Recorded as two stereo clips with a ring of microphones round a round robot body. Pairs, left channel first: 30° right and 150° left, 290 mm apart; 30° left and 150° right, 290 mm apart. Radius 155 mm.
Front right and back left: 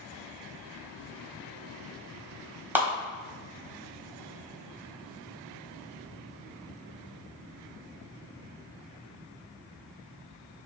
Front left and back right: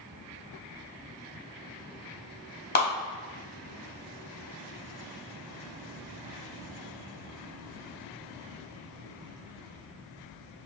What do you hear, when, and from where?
2.8 s a clap: 70° left, 1.4 m